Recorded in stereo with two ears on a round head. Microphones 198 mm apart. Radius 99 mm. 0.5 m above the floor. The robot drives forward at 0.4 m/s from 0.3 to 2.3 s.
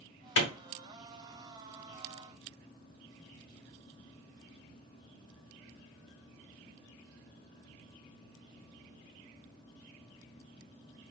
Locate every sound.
0.4 s a clap: 65° left (ahead or behind), 1.2 m